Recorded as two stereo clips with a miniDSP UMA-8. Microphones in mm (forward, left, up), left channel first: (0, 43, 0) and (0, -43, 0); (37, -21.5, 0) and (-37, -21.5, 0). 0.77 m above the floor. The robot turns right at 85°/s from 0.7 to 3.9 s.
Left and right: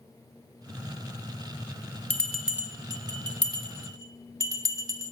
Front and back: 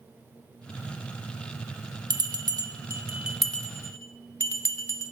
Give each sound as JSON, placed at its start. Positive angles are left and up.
{"t": 2.1, "sound": "a bell", "azimuth_deg": 160, "distance_m": 0.8}